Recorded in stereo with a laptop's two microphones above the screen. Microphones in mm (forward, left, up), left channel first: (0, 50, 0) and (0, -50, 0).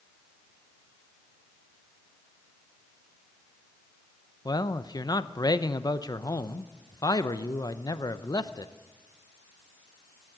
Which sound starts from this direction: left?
A man speaking, at 4.5 s.